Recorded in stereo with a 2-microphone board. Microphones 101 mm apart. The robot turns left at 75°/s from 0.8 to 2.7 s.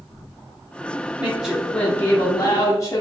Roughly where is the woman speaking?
Behind right.